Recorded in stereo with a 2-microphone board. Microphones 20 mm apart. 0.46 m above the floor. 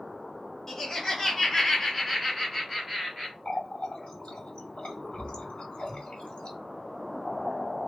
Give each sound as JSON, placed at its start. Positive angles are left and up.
{"t": 0.7, "sound": "laughter", "side_deg": 25, "distance_m": 1.5}
{"t": 3.5, "sound": "a running tap", "side_deg": 75, "distance_m": 1.7}